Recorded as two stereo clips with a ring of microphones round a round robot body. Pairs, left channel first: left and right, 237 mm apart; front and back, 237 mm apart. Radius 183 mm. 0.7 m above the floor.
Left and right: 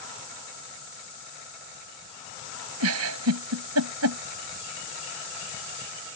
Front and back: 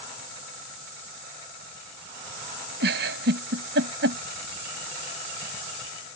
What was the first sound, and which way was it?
A giggle, 125° right.